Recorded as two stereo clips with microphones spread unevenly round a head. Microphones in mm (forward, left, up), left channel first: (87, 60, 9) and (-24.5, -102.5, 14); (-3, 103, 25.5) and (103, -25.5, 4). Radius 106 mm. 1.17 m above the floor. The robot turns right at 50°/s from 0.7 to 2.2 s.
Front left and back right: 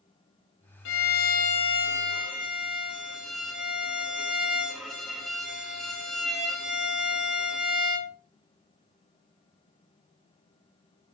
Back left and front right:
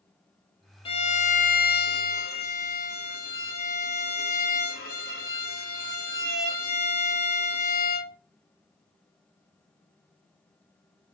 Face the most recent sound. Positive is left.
turn(degrees=145)